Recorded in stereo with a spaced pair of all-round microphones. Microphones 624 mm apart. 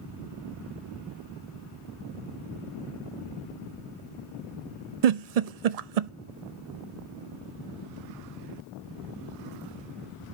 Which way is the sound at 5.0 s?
75° right (ahead or behind).